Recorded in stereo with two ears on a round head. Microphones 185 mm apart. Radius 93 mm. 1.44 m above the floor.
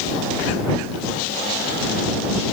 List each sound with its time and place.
Only background noise.